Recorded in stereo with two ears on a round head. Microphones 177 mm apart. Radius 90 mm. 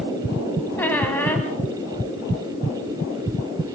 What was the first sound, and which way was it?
A squeak, 10° left (ahead or behind).